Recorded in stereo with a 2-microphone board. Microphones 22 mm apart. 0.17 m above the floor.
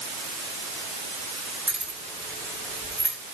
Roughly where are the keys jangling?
Right.